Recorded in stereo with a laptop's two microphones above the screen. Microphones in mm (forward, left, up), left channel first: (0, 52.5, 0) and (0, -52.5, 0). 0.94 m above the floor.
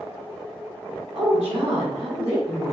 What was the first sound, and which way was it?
A woman speaking, 65° right (ahead or behind).